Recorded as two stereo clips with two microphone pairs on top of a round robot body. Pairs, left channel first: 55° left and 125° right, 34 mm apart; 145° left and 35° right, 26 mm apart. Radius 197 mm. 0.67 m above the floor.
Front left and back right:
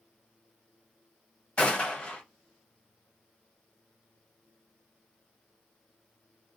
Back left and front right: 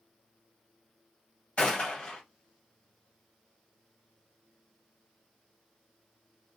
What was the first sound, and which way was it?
A gunshot, 105° left.